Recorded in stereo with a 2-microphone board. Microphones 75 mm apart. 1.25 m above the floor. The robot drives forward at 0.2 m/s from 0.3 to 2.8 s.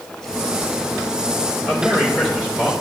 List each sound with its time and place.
1.6 s a man speaking: 15° right (ahead or behind), 3 m